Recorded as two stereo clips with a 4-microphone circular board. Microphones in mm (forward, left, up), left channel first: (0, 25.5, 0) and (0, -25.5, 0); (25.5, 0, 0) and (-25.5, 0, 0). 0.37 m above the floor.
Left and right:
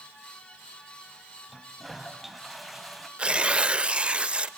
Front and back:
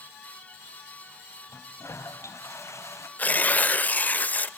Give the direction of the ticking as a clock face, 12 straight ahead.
No ticking in this recording.